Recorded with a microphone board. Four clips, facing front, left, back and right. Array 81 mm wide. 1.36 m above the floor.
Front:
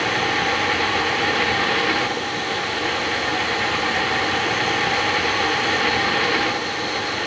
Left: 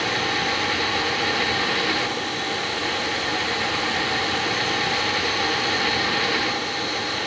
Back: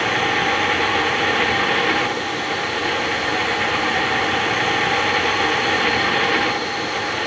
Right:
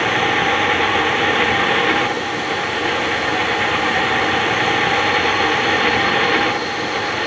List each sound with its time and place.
Only background noise.